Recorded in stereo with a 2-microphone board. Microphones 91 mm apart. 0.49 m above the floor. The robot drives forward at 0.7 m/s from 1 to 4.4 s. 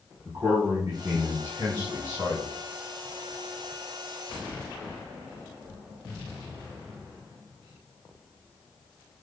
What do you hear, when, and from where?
0.2 s a man speaking: 40° right (ahead or behind), 4 m; by 2.5 s 55° right (ahead or behind), 3 m